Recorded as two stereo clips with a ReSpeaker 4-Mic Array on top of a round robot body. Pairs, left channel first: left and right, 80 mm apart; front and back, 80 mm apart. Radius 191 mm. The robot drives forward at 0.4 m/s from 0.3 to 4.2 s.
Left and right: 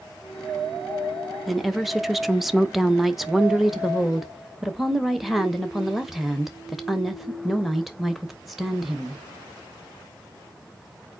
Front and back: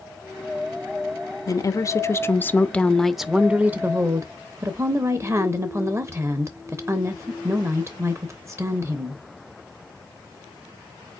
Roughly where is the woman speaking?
Ahead.